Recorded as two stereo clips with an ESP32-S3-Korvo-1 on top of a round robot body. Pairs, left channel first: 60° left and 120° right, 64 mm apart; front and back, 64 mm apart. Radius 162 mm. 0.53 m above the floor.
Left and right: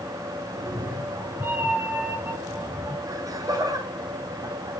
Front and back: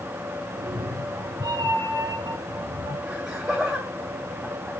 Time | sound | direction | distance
0.5 | a cat meowing | 160° right | 4.5 m
3.1 | laughter | 100° right | 3.5 m